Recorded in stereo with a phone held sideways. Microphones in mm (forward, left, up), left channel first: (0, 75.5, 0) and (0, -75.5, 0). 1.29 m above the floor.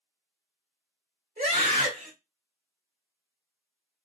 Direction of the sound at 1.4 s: 70° right (ahead or behind).